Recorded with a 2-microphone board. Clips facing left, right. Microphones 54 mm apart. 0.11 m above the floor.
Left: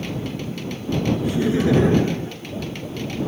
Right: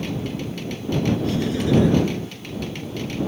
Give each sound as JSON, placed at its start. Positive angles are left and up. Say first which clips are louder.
{"t": 1.2, "sound": "laughter", "louder": "left 3 dB", "side_deg": 15}